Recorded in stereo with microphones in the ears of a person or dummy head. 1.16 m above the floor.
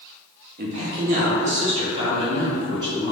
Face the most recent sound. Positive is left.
turn(degrees=-15)  # may be behind; listen again after turning